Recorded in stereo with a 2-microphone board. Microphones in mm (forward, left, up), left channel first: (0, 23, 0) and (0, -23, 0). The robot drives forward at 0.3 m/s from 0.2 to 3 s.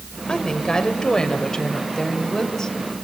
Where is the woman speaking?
15° left (ahead or behind), 2 m.